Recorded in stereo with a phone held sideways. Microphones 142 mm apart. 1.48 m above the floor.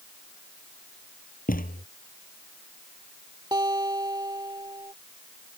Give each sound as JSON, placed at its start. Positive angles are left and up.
{"t": 1.5, "sound": "a thud", "side_deg": 80}
{"t": 3.5, "sound": "a guitar", "side_deg": -30}